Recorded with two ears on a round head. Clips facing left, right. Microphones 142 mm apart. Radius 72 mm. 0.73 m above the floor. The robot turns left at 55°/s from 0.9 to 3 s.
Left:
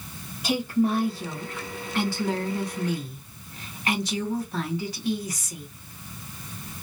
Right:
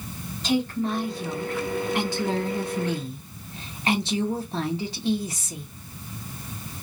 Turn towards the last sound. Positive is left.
turn(degrees=-25)  # may be behind; listen again after turning